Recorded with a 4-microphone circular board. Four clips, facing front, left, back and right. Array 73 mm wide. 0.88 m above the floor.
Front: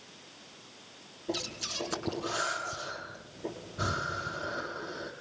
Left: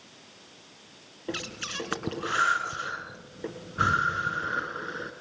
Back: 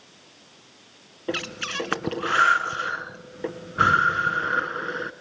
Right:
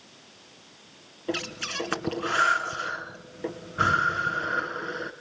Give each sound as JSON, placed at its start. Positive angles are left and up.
{"t": 1.3, "sound": "breathing", "azimuth_deg": -175, "distance_m": 1.7}